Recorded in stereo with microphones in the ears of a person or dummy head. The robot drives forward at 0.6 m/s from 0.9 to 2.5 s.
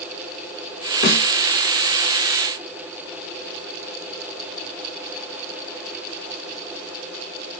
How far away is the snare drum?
About 4.5 m.